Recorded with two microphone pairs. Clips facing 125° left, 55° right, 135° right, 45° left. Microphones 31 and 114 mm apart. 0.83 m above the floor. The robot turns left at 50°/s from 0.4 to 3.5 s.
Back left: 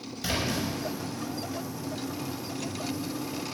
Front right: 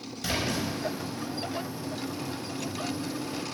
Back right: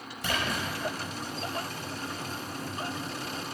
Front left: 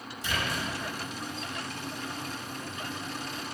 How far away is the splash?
About 5.5 m.